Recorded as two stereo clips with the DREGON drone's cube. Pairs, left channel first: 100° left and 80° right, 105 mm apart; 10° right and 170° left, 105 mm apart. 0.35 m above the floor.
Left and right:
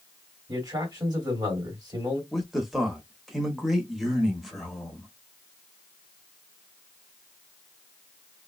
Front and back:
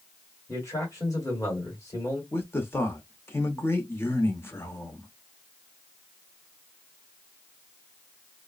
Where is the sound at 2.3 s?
10° left, 0.9 m.